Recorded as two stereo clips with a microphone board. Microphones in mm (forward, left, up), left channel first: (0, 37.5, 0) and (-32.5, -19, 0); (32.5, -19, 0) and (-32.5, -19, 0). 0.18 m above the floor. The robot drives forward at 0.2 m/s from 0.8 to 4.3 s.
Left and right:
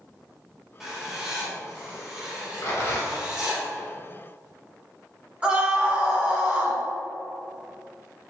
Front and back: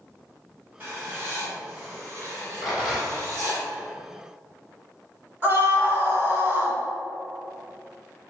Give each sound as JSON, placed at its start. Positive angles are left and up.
{"t": 0.8, "sound": "writing", "azimuth_deg": 165, "distance_m": 1.6}
{"t": 2.6, "sound": "a rattle", "azimuth_deg": 95, "distance_m": 1.6}
{"t": 5.4, "sound": "a scream", "azimuth_deg": -175, "distance_m": 1.2}